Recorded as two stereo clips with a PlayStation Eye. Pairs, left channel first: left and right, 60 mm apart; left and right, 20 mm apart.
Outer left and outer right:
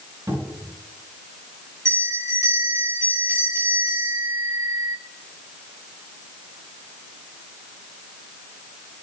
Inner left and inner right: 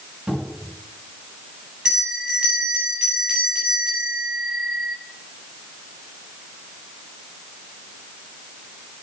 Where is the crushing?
No crushing in this recording.